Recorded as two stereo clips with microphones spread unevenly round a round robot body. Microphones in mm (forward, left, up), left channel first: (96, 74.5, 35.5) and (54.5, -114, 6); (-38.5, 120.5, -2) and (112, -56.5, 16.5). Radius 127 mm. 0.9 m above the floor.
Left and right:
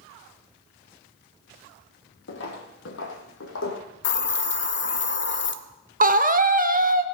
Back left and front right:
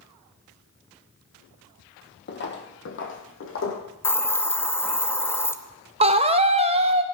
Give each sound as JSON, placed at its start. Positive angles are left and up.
{"t": 2.3, "sound": "footsteps", "azimuth_deg": 90, "distance_m": 1.9}
{"t": 4.0, "sound": "a hiss", "azimuth_deg": 50, "distance_m": 0.8}
{"t": 6.0, "sound": "a scream", "azimuth_deg": -115, "distance_m": 0.8}